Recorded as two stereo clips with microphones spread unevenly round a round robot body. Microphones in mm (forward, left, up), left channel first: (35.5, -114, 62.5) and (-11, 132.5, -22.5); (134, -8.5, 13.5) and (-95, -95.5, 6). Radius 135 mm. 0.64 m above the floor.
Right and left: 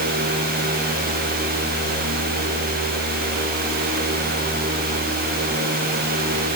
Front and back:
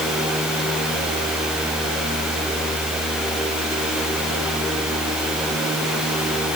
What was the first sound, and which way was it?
Only background noise.